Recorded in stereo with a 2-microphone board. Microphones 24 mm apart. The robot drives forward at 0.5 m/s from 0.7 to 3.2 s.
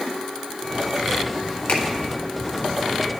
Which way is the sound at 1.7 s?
70° left (ahead or behind).